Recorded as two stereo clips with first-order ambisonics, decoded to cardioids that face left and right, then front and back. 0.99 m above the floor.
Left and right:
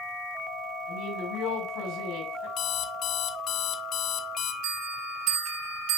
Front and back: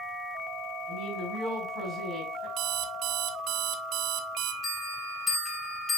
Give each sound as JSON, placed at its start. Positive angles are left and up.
{"t": 0.9, "sound": "a woman speaking", "azimuth_deg": 85, "distance_m": 5.5}
{"t": 2.6, "sound": "an alarm clock", "azimuth_deg": 140, "distance_m": 0.7}
{"t": 4.6, "sound": "a bell", "azimuth_deg": -75, "distance_m": 3.5}